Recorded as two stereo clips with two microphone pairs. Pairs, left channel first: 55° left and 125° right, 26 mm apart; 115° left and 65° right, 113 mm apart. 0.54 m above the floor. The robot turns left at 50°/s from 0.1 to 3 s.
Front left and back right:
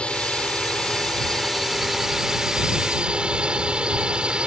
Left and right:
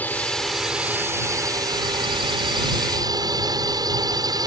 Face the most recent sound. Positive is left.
turn(degrees=-95)